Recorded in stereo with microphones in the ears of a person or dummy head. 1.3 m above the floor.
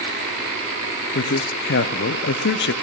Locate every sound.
1.1 s a man speaking: 55° left (ahead or behind), 0.7 m